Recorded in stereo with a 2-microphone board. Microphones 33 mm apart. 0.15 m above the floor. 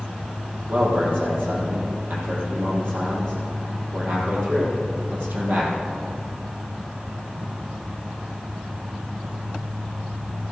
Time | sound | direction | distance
0.7 | a man speaking | 65° right (ahead or behind) | 4 m